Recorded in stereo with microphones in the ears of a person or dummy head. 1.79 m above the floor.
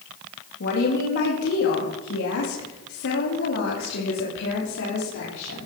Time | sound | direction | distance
0.6 | a woman speaking | 60° left (ahead or behind) | 3 m